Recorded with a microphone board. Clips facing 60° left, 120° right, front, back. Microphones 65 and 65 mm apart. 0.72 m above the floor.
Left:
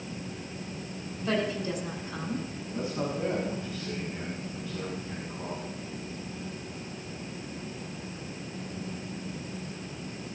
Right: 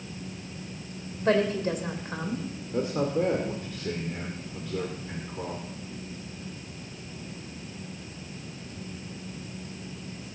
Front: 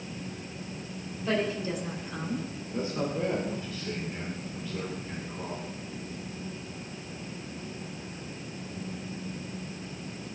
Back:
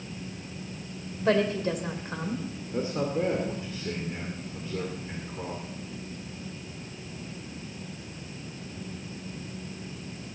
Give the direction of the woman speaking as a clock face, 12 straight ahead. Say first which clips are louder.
Right 5 dB, back 5 dB; 5 o'clock.